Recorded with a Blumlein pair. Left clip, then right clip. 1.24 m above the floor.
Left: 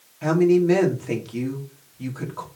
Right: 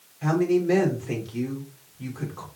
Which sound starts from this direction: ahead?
A woman speaking, at 0.2 s.